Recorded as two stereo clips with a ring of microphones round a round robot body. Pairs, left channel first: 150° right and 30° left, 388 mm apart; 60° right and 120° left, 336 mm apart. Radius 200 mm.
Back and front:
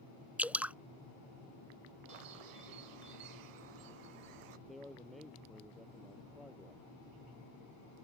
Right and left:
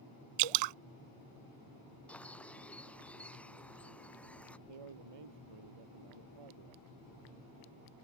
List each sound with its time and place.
0.4 s dripping: 115° left
2.1 s a bird: 25° left
4.7 s a man speaking: 120° left